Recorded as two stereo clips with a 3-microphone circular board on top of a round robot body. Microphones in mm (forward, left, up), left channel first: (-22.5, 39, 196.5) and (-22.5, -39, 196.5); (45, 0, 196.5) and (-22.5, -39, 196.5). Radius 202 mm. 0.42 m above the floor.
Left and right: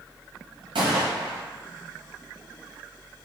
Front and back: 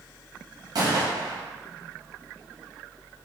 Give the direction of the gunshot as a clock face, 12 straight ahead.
4 o'clock.